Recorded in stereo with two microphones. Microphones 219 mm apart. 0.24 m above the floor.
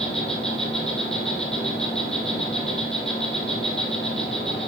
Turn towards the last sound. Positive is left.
turn(degrees=30)  # may be behind; listen again after turning